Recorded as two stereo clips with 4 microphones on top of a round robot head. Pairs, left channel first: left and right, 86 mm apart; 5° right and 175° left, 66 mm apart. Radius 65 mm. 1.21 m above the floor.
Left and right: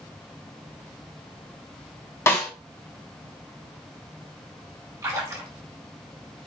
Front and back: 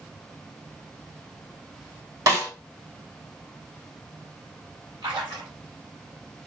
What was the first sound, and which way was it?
A snare drum, 150° left.